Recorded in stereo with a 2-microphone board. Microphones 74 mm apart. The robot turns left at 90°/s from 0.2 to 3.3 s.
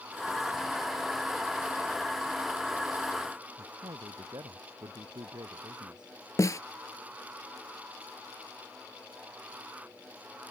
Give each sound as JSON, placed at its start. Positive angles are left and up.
{"t": 3.6, "sound": "a man speaking", "side_deg": -70}
{"t": 6.4, "sound": "a snare drum", "side_deg": 45}